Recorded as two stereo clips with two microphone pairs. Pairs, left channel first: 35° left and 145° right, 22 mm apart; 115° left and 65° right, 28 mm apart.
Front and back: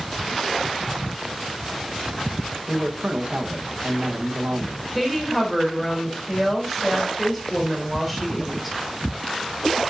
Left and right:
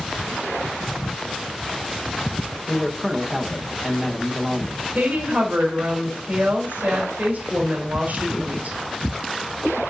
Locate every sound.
2.7 s a man speaking: 155° right, 1.4 m
5.0 s a woman speaking: 55° right, 4 m